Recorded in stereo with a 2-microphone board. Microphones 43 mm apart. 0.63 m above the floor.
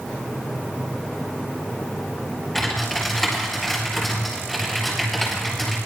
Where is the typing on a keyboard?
5° left (ahead or behind), 8 m.